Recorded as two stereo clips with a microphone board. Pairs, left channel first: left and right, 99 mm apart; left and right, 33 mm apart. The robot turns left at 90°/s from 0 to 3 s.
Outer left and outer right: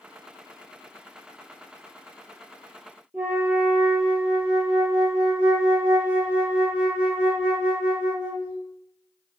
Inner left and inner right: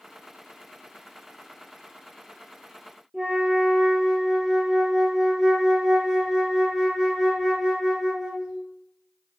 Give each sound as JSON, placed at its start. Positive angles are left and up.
{"t": 3.1, "sound": "a flute", "side_deg": -15, "distance_m": 0.8}